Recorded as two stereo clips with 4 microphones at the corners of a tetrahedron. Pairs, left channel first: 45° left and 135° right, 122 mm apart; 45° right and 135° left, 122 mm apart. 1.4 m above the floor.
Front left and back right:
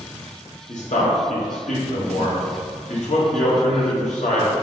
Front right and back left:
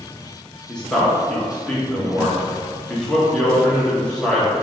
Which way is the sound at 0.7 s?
35° left.